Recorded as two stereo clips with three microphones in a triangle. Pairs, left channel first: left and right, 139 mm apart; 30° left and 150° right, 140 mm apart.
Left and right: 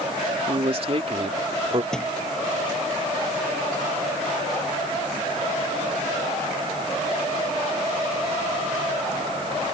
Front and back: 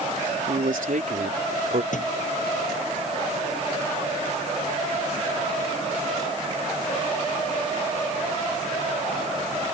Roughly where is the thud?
Ahead.